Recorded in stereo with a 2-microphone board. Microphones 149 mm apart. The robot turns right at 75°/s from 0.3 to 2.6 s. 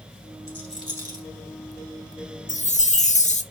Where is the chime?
55° left (ahead or behind), 0.7 m; by 3.4 s 50° left (ahead or behind), 0.7 m.